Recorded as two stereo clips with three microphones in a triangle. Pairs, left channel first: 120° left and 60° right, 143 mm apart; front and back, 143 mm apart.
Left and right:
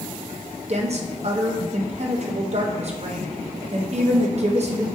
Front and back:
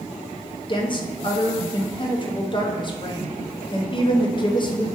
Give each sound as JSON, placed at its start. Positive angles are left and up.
{"t": 0.7, "sound": "a woman speaking", "azimuth_deg": -45, "distance_m": 0.6}